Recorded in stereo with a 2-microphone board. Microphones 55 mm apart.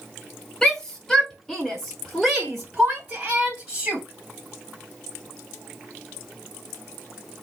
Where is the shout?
15° left (ahead or behind), 1.5 m; by 4.0 s 10° right (ahead or behind), 2 m.